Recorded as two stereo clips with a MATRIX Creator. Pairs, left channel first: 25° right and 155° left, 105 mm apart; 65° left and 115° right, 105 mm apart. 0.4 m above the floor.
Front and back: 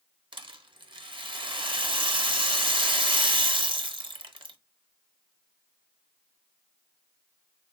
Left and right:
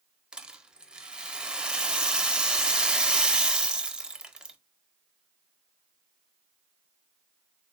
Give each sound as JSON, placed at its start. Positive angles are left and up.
{"t": 0.3, "sound": "a rattle", "azimuth_deg": 170, "distance_m": 0.5}